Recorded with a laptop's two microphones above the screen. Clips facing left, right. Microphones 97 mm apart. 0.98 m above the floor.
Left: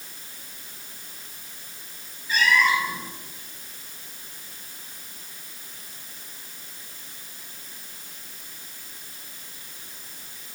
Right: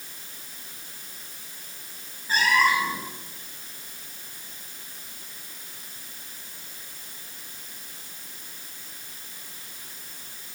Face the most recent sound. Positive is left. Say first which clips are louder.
# even
turn(degrees=-35)  # may be behind; listen again after turning